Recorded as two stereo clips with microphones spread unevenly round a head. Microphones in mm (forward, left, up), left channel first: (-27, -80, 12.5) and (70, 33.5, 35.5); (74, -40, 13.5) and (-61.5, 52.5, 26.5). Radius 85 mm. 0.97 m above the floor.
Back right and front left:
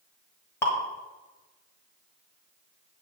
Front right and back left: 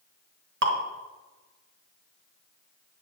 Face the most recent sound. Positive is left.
turn(degrees=150)